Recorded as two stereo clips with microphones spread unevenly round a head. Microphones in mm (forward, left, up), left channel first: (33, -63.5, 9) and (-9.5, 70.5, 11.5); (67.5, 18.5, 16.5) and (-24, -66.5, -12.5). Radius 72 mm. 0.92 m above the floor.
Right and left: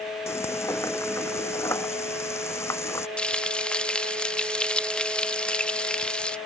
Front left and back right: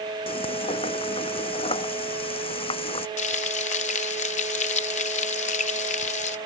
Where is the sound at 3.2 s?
10° left.